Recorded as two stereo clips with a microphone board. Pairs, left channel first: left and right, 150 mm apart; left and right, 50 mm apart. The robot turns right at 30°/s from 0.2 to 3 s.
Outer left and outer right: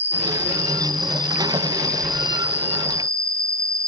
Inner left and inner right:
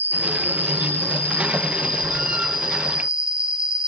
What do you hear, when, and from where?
0.0 s an insect: 120° left, 1.7 m; by 3.9 s 155° right, 1.7 m